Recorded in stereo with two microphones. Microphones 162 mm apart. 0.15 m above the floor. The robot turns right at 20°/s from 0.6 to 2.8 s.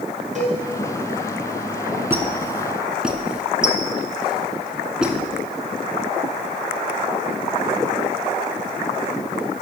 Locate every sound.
0.3 s a cowbell: 50° right (ahead or behind), 2.5 m
2.1 s a squeak: 15° right (ahead or behind), 0.7 m; by 5.2 s 5° right (ahead or behind), 0.7 m